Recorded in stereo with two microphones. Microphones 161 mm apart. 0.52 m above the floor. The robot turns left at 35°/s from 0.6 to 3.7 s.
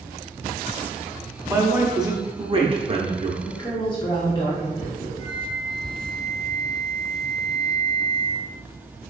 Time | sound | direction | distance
1.5 | a man speaking | 20° right | 0.9 m
3.5 | a woman speaking | 30° left (ahead or behind) | 0.9 m
5.2 | a flute | 25° left (ahead or behind) | 1.3 m